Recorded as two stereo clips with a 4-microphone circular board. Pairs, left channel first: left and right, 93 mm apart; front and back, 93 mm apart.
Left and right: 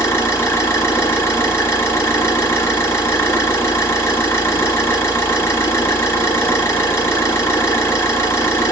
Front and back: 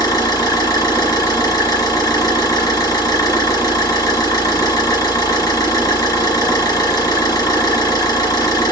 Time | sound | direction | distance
0.0 | an engine running | 35° left | 1.2 m